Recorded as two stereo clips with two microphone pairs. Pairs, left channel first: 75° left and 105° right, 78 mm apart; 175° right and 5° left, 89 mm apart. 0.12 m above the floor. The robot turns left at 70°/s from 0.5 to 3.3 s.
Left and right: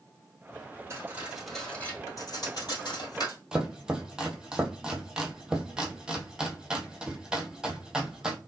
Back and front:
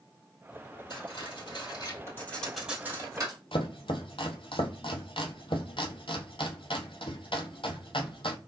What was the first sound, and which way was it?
Cutlery clinking, 150° right.